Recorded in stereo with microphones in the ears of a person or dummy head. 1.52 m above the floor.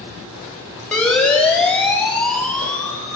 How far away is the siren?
About 8 m.